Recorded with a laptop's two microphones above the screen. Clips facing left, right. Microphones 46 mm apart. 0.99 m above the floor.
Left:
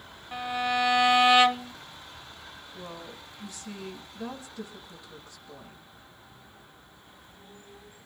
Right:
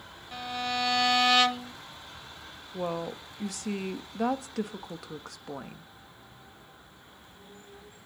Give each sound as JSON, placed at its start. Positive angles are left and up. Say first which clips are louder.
{"t": 0.3, "sound": "a violin", "louder": "left 4 dB", "side_deg": 15, "distance_m": 0.9}
{"t": 2.7, "sound": "a woman speaking", "louder": "right 11 dB", "side_deg": -70, "distance_m": 1.4}